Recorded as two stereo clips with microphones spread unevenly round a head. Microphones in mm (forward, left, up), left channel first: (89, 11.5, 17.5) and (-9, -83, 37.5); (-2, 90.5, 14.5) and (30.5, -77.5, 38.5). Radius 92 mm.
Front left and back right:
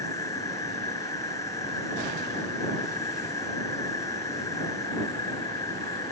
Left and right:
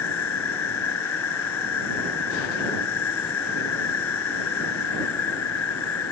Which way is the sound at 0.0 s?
120° left.